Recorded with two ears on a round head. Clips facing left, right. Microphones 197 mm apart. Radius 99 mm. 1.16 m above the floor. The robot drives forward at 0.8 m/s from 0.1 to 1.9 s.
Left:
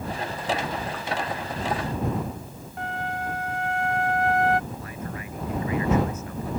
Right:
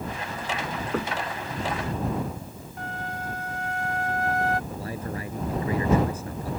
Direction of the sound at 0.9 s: 40° right (ahead or behind).